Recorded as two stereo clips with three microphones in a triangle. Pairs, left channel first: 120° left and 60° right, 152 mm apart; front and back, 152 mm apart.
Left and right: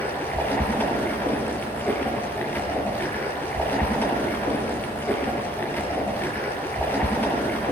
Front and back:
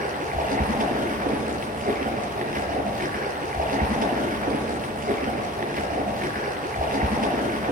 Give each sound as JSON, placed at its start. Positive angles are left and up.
{"t": 0.0, "sound": "running water", "azimuth_deg": -160, "distance_m": 6.5}